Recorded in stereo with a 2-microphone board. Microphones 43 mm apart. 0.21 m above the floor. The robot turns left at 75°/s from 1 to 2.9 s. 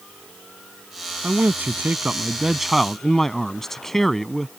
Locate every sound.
1.2 s a man speaking: 65° right; by 4.5 s 170° left